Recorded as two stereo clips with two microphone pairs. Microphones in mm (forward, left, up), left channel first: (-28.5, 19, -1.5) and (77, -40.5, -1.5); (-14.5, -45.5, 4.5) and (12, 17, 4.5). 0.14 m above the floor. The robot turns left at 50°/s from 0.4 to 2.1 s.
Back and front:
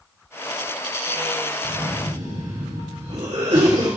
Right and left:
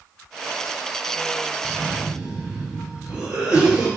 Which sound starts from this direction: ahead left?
A cough, at 1.6 s.